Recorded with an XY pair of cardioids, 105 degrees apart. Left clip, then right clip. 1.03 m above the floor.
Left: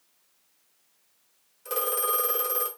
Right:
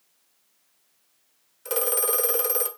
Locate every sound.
1.6 s a phone ringing: 35° right, 1.1 m